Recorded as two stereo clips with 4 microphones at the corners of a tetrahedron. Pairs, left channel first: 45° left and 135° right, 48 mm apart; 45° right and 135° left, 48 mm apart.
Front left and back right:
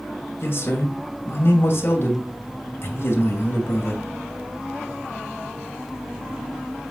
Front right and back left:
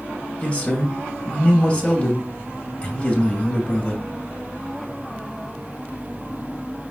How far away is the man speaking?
About 2.5 m.